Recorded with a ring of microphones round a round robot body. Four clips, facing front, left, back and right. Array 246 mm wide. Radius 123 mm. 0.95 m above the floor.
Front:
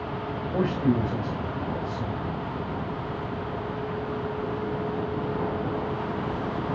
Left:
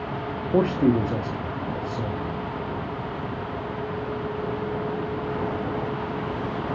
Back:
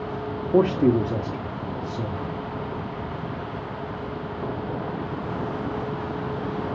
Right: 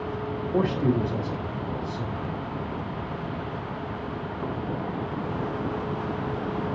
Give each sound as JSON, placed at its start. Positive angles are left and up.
{"t": 0.5, "sound": "a man speaking", "azimuth_deg": 140, "distance_m": 1.1}